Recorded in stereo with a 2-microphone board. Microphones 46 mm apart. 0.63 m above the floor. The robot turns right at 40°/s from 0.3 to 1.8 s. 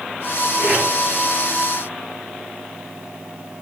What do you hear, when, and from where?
0.6 s tape being pulled: 40° right (ahead or behind), 5 m; by 0.9 s 30° right (ahead or behind), 5 m